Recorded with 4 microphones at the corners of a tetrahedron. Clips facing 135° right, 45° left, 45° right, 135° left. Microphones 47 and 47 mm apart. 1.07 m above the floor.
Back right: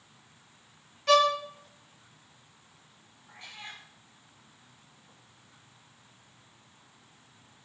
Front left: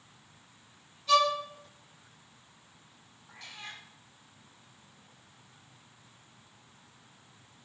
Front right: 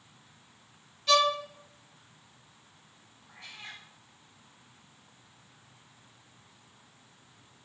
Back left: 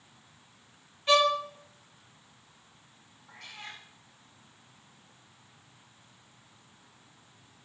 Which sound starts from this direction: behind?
A violin, at 1.1 s.